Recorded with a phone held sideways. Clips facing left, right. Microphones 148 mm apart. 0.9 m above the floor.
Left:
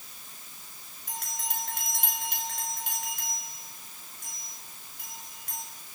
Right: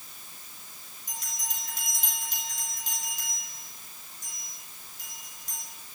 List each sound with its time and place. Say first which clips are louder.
1.1 s a bell: left 5 dB; 60° left (ahead or behind), 5.5 m